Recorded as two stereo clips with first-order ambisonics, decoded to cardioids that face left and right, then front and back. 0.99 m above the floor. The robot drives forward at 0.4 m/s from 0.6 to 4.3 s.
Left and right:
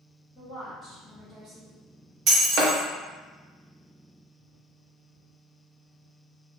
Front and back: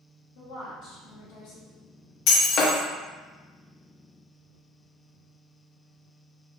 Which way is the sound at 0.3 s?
20° right.